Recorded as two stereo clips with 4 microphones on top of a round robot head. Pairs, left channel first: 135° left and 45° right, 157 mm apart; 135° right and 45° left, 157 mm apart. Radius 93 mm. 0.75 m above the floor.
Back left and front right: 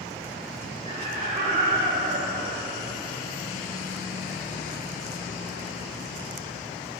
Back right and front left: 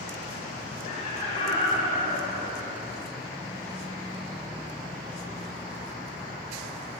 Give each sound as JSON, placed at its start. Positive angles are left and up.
{"t": 0.8, "sound": "laughter", "azimuth_deg": -90, "distance_m": 2.5}